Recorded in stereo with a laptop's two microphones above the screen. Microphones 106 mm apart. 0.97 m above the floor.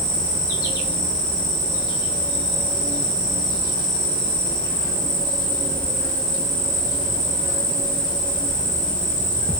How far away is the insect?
About 0.9 m.